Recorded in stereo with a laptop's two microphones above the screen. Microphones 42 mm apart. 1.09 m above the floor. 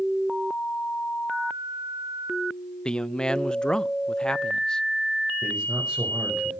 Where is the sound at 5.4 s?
15° right (ahead or behind), 6 m.